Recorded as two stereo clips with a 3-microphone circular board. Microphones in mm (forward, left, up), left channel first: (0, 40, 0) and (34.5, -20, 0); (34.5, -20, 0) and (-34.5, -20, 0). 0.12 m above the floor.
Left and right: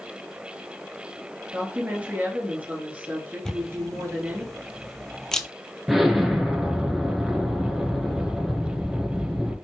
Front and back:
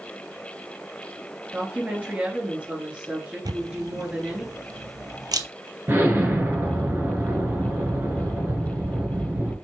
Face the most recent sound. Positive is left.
turn(degrees=-145)